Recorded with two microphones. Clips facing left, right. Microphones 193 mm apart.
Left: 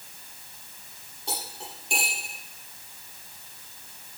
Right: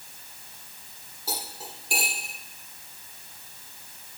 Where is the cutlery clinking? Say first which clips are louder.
Even; 5° right (ahead or behind), 5 m.